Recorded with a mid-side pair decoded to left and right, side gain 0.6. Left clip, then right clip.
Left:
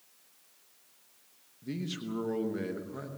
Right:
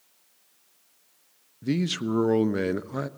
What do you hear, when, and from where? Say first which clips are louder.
1.6 s a man speaking: right 11 dB; 55° right, 1.0 m